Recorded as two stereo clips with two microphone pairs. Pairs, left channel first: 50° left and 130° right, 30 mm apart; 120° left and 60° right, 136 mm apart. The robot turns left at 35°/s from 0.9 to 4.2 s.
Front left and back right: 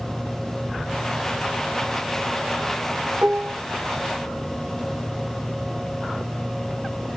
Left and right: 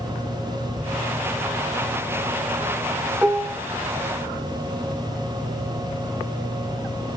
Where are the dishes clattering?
140° right, 1.1 m; by 3.6 s 155° right, 1.1 m.